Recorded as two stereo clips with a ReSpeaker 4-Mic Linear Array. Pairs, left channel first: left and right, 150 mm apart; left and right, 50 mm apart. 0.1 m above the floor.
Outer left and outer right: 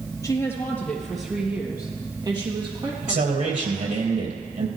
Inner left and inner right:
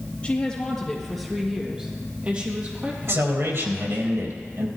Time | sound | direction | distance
0.2 | a woman speaking | 20° left (ahead or behind) | 3 m
3.0 | a man speaking | 60° right (ahead or behind) | 3.5 m